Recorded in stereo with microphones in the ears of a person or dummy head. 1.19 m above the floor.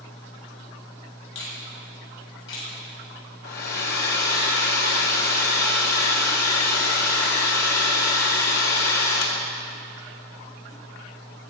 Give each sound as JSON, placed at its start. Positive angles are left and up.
{"t": 1.4, "sound": "a finger snap", "side_deg": 75, "distance_m": 7.5}
{"t": 3.4, "sound": "a hair dryer", "side_deg": 65, "distance_m": 1.9}